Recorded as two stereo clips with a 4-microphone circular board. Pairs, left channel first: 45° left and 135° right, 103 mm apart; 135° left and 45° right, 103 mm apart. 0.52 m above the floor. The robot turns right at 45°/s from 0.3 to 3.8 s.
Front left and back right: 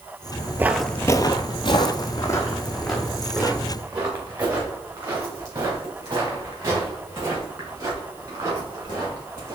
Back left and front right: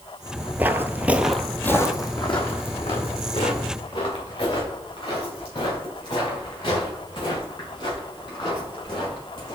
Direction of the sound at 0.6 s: 100° right.